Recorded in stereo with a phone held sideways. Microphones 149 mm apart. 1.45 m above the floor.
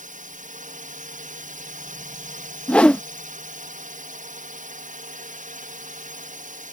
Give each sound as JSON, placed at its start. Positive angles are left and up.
{"t": 0.0, "sound": "a drone", "side_deg": -60}
{"t": 2.7, "sound": "a whoosh", "side_deg": 10}